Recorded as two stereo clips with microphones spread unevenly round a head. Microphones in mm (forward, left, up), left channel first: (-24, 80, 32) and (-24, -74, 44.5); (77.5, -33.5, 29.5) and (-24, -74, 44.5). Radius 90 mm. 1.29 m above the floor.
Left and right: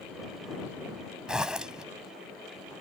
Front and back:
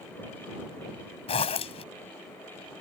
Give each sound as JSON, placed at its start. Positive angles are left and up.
{"t": 1.3, "sound": "a zipper", "azimuth_deg": -10}